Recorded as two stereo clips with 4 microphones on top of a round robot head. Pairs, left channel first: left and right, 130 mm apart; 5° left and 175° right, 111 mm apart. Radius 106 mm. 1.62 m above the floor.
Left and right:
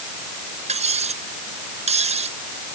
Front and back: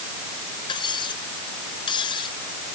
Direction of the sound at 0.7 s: 55° right.